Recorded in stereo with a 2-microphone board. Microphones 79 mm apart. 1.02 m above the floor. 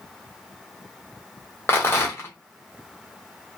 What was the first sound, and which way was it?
A rattle, 30° left (ahead or behind).